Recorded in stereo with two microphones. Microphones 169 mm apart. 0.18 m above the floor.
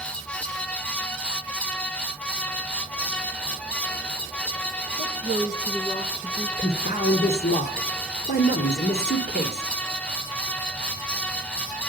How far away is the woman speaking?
About 3 m.